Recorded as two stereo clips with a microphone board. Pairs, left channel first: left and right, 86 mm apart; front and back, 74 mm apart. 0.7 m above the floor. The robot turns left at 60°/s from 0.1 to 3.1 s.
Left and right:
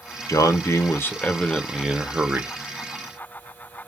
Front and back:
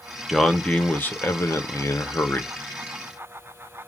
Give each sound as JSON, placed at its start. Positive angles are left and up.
{"t": 0.3, "sound": "a man speaking", "azimuth_deg": 85, "distance_m": 0.7}